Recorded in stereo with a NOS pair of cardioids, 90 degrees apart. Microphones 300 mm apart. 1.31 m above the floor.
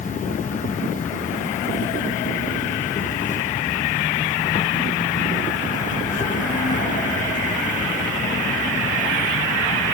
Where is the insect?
25° left.